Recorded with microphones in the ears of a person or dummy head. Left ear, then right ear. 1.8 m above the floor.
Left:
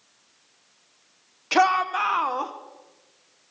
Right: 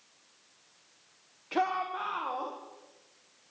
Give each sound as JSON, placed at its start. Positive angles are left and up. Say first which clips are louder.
{"t": 1.5, "sound": "a shout", "louder": "left 10 dB", "side_deg": 80, "distance_m": 1.5}